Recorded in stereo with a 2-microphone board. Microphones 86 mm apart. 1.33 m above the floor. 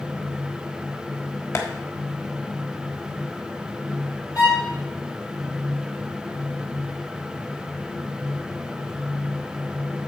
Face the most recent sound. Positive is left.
turn(degrees=50)  # may be behind; listen again after turning